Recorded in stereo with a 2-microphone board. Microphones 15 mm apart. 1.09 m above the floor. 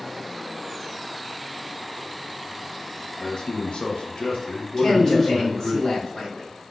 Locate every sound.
3.2 s a man speaking: 40° left (ahead or behind), 0.6 m; by 5.8 s 30° left (ahead or behind), 1.2 m
4.8 s a man speaking: 35° left (ahead or behind), 1.1 m